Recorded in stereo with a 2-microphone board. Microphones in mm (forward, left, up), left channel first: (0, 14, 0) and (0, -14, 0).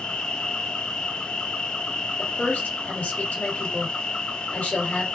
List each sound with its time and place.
0.0 s an insect: 40° left (ahead or behind), 1.0 m
2.2 s a woman speaking: 65° left (ahead or behind), 2.5 m